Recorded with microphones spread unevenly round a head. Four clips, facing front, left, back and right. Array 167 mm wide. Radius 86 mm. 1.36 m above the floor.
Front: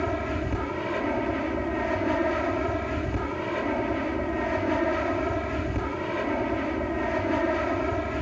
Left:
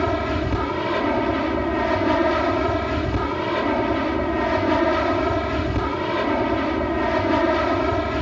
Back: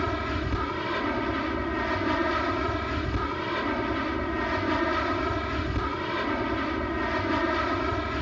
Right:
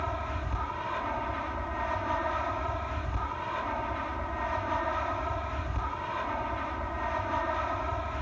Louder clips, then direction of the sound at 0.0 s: Left 12 dB, front 1 dB; 100° left.